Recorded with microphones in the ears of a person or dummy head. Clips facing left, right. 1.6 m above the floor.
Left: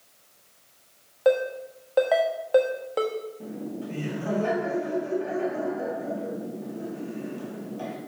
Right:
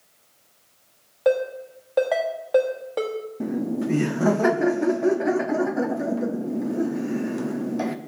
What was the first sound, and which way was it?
A ringtone, centre (ahead or behind).